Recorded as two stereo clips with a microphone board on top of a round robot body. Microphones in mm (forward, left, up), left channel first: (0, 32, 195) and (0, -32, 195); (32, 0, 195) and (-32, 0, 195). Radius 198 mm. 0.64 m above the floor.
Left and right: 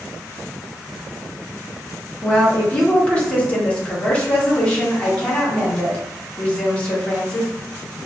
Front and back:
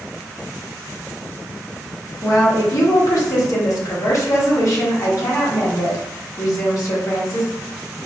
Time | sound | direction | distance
2.2 | a woman speaking | 20° left | 1.9 m